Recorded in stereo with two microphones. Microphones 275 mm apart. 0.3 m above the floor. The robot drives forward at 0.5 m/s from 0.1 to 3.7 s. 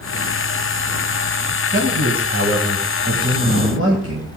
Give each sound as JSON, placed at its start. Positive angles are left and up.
{"t": 1.7, "sound": "a man speaking", "side_deg": -50, "distance_m": 1.9}